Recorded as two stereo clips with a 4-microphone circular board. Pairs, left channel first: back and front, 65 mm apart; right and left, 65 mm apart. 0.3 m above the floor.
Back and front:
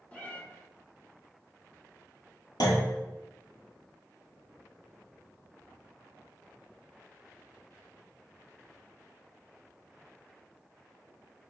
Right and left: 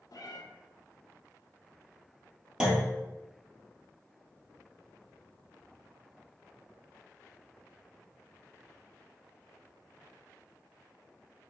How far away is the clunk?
About 1.1 m.